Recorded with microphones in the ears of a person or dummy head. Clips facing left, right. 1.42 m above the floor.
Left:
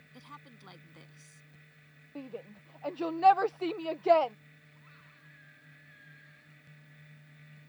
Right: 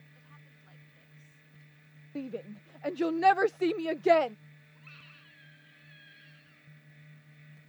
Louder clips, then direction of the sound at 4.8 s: Right 2 dB; 40° right (ahead or behind).